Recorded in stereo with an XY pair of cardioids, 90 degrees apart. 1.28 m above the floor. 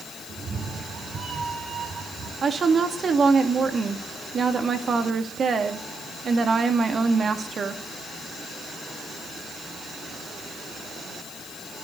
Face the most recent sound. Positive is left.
turn(degrees=-50)